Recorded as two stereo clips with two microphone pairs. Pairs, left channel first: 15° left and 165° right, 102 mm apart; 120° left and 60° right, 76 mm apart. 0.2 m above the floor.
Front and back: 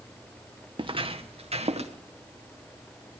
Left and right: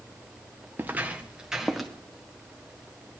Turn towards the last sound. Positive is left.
turn(degrees=-150)